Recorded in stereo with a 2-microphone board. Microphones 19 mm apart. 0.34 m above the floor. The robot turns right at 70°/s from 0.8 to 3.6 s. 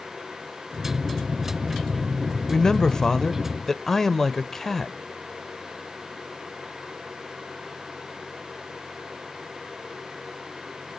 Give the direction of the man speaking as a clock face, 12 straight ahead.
10 o'clock.